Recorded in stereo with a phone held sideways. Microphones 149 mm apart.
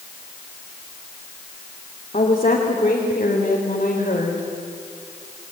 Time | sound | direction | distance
2.1 | a woman speaking | 45° left (ahead or behind) | 3 m